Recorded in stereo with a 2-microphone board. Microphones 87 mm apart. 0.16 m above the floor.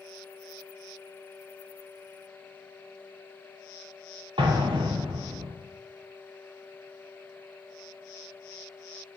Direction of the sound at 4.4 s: 80° right.